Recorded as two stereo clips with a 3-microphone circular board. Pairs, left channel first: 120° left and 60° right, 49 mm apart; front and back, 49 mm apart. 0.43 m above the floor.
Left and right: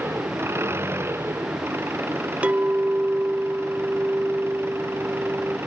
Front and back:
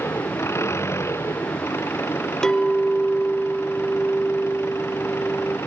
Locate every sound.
0.0 s an engine running: 25° right
2.4 s a clink: 65° right